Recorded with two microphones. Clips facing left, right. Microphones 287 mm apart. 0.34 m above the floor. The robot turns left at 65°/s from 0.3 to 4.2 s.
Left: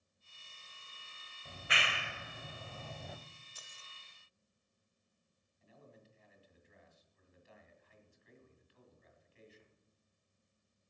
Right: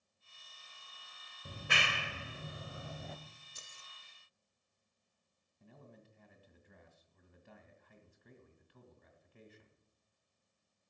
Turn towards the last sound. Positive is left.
turn(degrees=-60)  # may be behind; listen again after turning